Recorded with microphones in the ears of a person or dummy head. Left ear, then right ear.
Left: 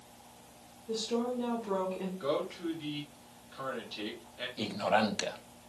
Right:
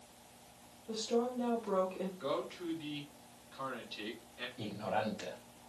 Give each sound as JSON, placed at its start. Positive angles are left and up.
{"t": 0.9, "sound": "a woman speaking", "side_deg": -20, "distance_m": 0.9}
{"t": 2.2, "sound": "a man speaking", "side_deg": -5, "distance_m": 2.5}
{"t": 4.6, "sound": "a man speaking", "side_deg": 85, "distance_m": 0.9}